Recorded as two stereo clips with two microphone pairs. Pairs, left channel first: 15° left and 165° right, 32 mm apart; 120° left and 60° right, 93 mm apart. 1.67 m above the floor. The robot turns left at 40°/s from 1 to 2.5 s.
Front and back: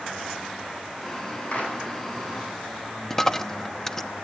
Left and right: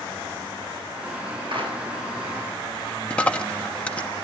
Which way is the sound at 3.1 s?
70° left.